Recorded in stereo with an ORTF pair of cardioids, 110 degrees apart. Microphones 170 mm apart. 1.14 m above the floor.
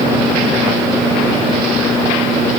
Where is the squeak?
I don't hear a squeak.